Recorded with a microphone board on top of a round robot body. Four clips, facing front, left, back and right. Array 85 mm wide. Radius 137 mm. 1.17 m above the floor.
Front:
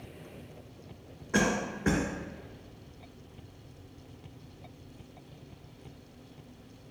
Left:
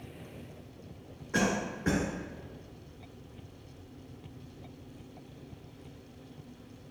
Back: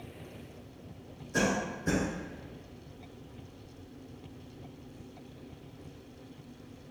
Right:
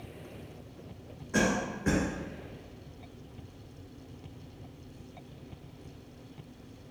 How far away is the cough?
About 1.2 m.